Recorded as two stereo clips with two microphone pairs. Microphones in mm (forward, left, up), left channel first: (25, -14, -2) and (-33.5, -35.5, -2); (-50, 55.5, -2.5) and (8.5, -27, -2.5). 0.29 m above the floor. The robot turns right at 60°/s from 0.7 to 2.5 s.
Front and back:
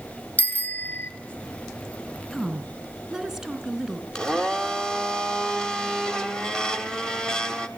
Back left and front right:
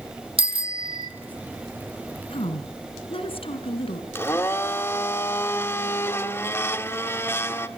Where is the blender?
85° left, 1.4 m.